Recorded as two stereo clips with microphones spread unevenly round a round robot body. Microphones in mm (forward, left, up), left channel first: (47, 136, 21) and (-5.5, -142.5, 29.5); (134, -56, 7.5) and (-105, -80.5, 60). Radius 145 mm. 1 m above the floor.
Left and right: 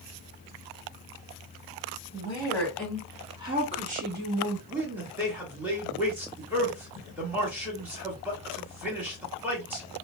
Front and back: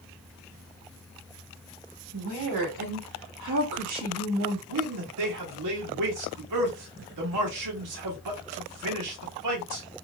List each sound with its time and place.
2.1 s a woman speaking: 155° left, 1.7 m; by 4.6 s 150° right, 1.6 m
4.7 s a man speaking: 175° left, 1.5 m